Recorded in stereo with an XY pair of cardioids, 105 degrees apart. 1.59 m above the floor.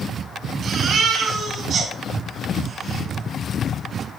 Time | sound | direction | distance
0.6 | a baby crying | 65° right | 2.5 m